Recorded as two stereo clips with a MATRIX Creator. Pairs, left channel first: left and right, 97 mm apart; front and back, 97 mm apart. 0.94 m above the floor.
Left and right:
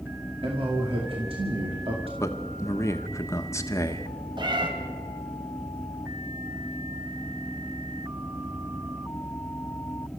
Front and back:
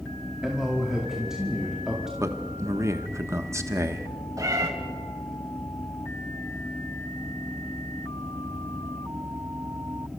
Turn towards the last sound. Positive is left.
turn(degrees=-130)